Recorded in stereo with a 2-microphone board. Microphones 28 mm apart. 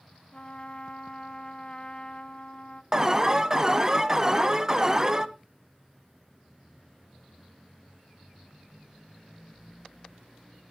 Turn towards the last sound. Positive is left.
turn(degrees=-20)  # may be behind; listen again after turning